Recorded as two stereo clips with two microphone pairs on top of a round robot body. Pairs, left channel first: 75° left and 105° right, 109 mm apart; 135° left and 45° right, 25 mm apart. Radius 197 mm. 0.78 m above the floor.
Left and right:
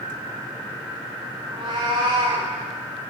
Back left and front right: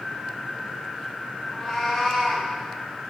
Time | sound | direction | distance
1.5 | a cat meowing | 155° right | 0.7 m